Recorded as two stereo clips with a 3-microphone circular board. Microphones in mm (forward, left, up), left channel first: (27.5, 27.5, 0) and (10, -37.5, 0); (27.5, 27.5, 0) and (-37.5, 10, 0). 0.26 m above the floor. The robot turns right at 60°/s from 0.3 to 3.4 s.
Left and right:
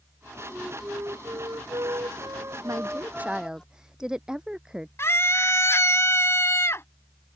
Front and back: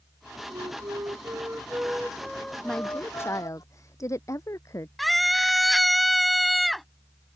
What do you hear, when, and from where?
0.5 s a flute: straight behind; by 3.6 s 5° right
2.6 s a woman speaking: 70° right; by 4.9 s 25° right
5.0 s a scream: 105° left